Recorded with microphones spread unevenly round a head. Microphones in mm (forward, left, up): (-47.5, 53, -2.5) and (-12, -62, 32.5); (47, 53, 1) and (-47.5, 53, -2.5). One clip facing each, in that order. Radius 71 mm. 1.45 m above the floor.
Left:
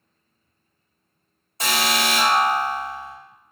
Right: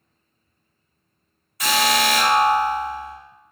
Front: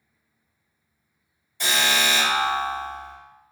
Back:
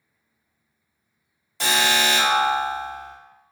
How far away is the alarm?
About 1.2 m.